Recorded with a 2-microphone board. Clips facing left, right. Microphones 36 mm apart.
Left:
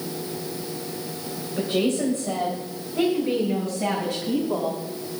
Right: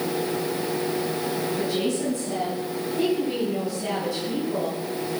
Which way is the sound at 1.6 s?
45° left (ahead or behind).